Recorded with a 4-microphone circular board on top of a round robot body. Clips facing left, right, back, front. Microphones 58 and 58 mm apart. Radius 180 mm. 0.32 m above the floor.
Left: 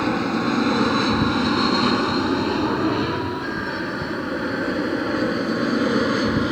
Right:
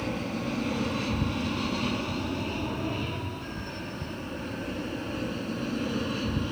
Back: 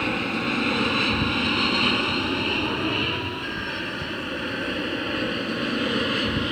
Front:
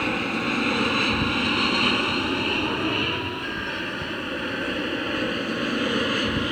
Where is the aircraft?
90° left.